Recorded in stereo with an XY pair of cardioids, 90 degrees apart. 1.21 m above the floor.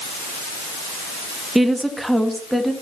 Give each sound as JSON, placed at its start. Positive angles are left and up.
{"t": 1.6, "sound": "a woman speaking", "azimuth_deg": -10, "distance_m": 1.2}